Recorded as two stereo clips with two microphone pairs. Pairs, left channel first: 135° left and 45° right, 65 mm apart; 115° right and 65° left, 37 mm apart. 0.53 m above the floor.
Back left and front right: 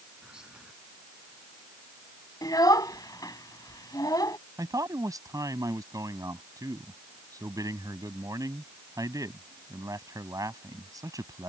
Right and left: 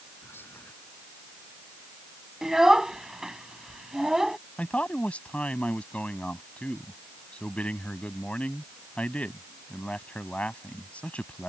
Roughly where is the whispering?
Behind right.